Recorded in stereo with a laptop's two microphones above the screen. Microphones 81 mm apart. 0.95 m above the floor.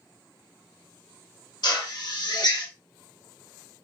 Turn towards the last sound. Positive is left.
turn(degrees=55)  # may be behind; listen again after turning